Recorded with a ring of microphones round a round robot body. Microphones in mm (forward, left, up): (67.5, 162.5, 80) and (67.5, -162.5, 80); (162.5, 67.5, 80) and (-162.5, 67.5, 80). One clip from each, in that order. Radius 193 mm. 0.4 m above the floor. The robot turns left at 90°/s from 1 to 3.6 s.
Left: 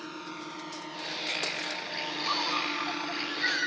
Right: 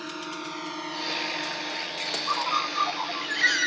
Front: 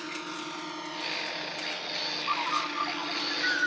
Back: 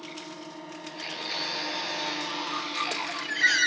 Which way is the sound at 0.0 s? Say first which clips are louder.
Right 5 dB, front 4 dB; 30° right.